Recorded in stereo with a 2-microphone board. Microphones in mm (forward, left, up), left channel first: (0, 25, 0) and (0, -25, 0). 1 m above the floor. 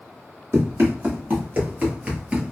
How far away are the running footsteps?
About 1.6 m.